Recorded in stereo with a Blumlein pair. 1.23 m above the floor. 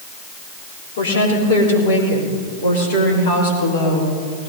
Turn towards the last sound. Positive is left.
turn(degrees=50)